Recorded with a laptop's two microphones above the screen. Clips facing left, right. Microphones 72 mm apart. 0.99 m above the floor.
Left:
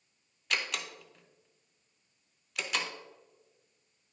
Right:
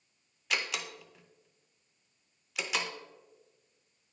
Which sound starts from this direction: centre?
A door slam, at 0.5 s.